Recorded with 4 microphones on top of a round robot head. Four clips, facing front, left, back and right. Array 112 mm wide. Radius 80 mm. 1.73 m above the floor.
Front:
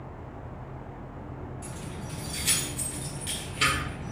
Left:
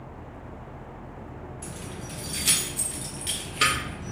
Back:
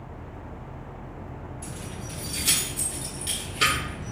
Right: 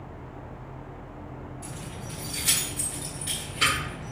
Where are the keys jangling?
95° left, 1.1 m.